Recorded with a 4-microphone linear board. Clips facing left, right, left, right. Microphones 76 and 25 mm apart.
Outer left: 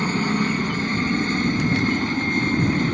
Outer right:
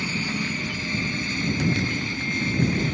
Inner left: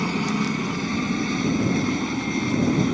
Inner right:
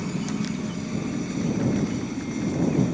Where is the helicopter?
45° left (ahead or behind).